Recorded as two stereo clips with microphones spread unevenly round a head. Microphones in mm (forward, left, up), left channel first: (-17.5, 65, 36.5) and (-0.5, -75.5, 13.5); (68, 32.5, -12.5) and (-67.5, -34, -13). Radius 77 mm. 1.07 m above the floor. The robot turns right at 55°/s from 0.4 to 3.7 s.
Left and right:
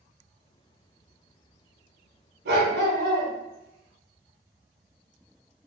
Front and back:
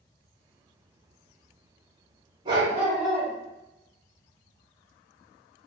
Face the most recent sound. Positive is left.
turn(degrees=-30)